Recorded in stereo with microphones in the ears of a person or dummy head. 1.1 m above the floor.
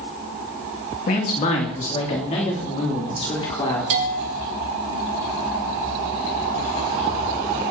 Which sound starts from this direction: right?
A bell, at 3.9 s.